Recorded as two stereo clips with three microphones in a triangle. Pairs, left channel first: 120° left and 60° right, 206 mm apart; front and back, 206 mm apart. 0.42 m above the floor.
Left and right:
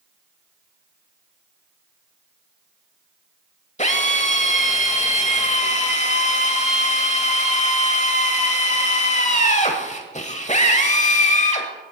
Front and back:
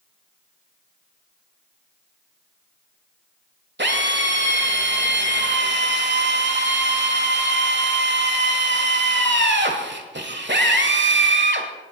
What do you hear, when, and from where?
3.8 s a drill: 170° left, 1.2 m